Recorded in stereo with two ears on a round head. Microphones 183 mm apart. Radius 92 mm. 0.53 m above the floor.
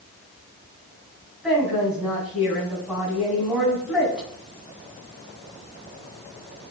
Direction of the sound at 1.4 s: 5° right (ahead or behind).